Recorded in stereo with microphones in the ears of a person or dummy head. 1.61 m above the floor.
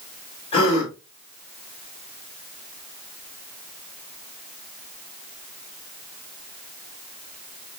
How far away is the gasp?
About 4.5 m.